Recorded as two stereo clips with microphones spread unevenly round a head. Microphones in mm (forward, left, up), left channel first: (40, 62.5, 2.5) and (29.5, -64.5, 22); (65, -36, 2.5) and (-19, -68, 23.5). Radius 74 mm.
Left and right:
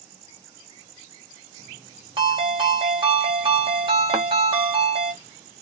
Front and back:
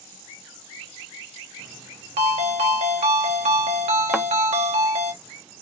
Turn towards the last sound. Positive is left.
turn(degrees=-85)